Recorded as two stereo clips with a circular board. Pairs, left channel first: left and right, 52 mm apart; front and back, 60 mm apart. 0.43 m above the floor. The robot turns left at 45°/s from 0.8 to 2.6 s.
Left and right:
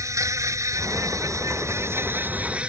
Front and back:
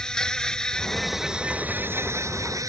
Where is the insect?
80° right; by 2.7 s 160° right.